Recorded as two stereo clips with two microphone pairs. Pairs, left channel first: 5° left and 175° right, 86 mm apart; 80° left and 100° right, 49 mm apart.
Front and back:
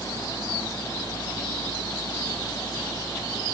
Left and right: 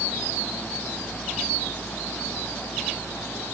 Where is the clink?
I don't hear a clink.